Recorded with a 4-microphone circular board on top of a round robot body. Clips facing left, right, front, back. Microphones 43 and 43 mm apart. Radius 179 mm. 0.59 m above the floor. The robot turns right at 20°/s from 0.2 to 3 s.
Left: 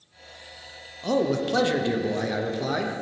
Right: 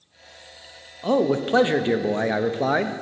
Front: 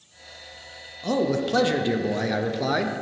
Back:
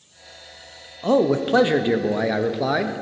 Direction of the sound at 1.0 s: 145° right.